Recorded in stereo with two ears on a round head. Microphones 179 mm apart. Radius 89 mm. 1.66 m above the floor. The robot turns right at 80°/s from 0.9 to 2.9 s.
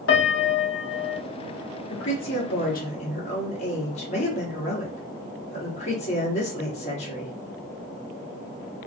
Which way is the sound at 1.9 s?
60° left.